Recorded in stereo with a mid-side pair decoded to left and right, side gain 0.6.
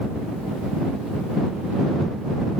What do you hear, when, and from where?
Only background noise.